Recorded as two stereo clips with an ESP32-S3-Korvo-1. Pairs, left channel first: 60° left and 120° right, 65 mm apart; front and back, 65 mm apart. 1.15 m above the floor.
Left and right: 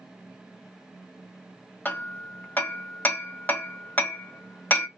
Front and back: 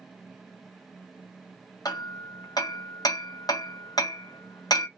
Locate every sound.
1.9 s hammering: 5° right, 0.8 m